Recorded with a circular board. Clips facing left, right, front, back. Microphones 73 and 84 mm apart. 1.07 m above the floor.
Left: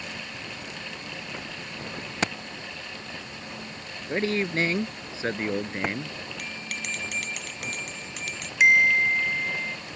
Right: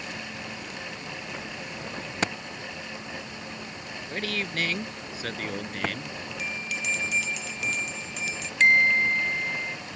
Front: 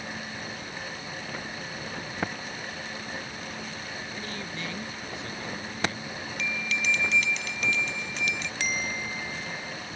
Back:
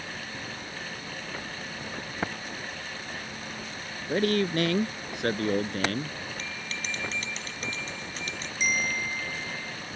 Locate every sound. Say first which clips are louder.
4.1 s a man speaking: left 6 dB, back 12 dB; 150° left; by 6.2 s 155° left
6.4 s a bell: right 6 dB, front 6 dB; 125° left
8.6 s a bell: left 1 dB, back 5 dB; 10° left